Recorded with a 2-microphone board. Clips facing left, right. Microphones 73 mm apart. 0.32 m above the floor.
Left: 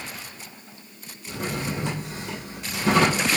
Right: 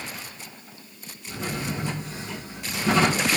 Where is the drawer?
75° left (ahead or behind), 3.5 m.